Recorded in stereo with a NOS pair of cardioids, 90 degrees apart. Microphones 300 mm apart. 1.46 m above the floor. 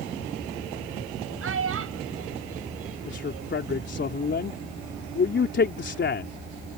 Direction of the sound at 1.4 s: 45° right.